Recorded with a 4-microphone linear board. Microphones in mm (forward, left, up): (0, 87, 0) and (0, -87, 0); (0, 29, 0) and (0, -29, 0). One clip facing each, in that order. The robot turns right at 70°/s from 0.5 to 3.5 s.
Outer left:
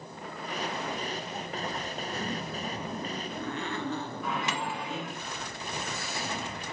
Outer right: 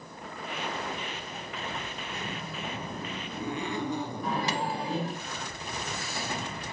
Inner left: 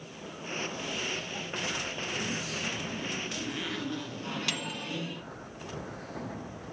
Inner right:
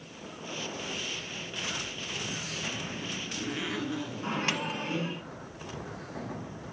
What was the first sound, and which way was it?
A zipper, 100° left.